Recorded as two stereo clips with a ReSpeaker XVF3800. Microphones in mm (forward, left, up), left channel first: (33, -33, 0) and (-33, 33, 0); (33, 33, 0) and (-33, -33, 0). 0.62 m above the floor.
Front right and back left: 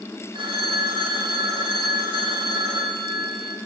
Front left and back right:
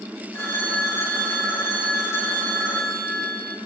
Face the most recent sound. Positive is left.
turn(degrees=110)